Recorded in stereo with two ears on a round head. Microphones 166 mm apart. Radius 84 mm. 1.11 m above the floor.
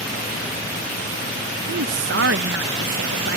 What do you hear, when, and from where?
1.7 s a woman speaking: 70° right (ahead or behind)